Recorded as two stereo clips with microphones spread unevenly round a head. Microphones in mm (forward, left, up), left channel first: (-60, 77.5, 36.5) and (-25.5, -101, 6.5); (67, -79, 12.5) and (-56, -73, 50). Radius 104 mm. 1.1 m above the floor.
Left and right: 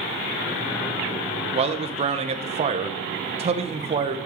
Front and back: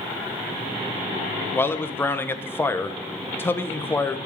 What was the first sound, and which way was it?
A man speaking, 50° right.